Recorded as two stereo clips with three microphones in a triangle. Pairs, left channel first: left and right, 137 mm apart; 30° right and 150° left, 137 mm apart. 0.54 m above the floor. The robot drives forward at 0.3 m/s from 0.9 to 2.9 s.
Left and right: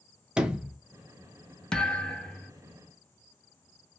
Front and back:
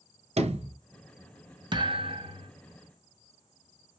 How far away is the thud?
About 0.6 m.